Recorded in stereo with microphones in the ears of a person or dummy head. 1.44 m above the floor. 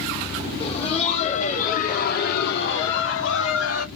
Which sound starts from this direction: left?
Laughter, at 0.6 s.